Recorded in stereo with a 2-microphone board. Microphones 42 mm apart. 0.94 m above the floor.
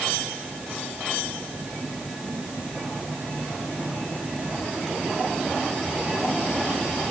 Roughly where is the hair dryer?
I don't hear a hair dryer.